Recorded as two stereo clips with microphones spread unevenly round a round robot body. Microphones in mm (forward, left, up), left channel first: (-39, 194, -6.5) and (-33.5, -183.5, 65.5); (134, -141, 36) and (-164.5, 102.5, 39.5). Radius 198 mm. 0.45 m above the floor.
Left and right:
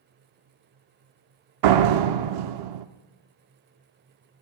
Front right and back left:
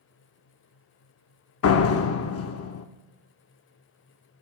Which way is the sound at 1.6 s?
80° right.